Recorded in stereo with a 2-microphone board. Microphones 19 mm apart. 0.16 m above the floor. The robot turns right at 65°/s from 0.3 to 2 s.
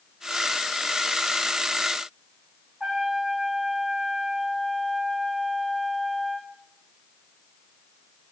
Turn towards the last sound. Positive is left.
turn(degrees=-65)  # may be behind; listen again after turning